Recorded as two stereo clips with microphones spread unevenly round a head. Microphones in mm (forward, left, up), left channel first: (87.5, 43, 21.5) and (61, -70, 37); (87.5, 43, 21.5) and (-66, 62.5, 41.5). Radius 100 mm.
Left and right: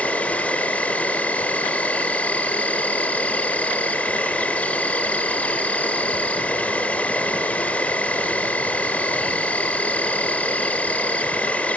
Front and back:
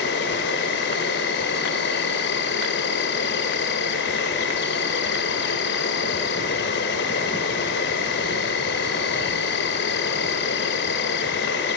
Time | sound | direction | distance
0.0 | an insect | 5° right | 1.4 m